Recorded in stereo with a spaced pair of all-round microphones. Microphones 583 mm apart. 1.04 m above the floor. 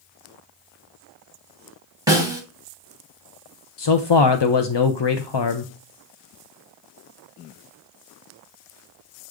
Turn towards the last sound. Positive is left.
turn(degrees=50)  # may be behind; listen again after turning